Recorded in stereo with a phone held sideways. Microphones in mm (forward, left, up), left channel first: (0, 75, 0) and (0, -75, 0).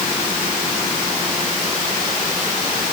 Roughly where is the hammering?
No hammering in this recording.